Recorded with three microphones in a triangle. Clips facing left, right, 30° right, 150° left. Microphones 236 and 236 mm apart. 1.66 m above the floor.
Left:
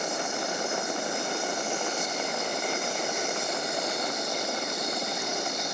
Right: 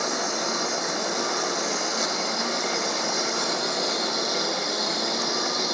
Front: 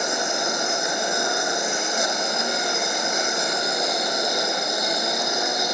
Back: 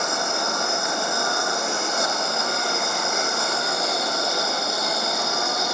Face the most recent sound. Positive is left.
turn(degrees=-105)